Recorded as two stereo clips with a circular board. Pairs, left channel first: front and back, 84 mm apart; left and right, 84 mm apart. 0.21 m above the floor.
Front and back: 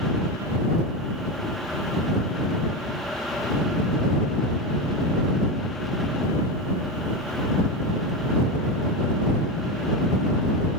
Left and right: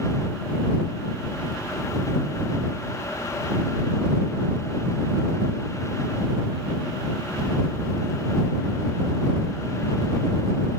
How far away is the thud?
I don't hear a thud.